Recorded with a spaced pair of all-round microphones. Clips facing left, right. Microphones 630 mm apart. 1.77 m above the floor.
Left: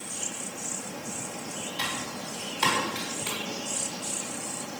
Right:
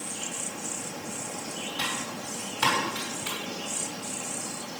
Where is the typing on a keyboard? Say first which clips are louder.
Right 1 dB; 35° right (ahead or behind), 6.5 m.